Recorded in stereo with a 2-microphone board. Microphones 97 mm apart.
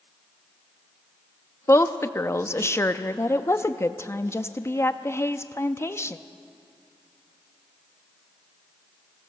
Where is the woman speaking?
25° left (ahead or behind), 0.6 m.